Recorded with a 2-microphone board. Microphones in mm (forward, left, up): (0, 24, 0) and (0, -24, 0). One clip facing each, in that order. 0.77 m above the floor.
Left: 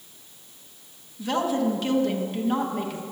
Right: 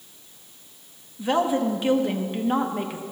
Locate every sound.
1.2 s a woman speaking: 20° right (ahead or behind), 0.8 m